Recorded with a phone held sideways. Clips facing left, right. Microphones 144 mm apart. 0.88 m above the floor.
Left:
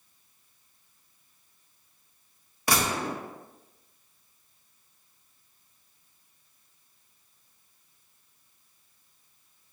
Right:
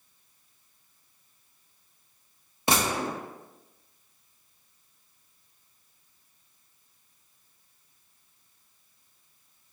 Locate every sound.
2.7 s a gunshot: 25° right (ahead or behind), 1.2 m